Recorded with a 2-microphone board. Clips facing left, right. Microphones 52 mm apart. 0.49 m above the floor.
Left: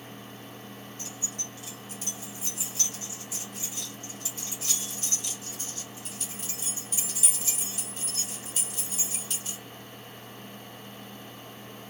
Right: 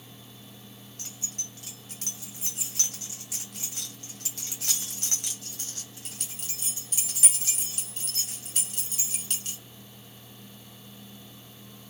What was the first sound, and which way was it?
Keys jangling, 65° right (ahead or behind).